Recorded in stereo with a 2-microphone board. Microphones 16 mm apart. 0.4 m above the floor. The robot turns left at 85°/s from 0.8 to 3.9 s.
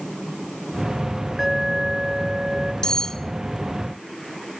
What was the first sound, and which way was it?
An alarm, 10° right.